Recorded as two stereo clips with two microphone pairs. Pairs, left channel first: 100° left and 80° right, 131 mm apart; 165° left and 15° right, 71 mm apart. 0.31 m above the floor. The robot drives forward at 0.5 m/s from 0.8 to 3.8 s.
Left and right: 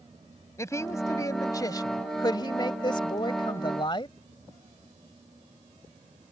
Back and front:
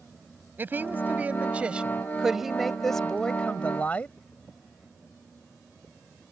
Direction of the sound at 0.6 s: 40° left.